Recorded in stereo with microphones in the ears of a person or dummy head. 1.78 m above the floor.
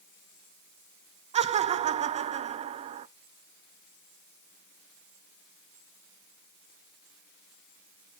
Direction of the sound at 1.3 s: 35° right (ahead or behind).